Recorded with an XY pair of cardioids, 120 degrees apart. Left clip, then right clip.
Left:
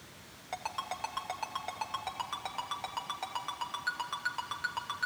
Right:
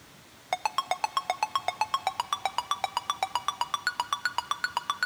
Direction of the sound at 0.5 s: 60° right.